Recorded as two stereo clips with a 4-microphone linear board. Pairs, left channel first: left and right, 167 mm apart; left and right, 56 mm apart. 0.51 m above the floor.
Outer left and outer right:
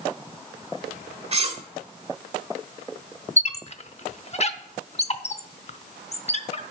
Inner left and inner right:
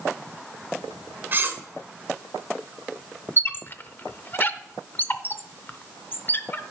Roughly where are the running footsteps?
I don't hear running footsteps.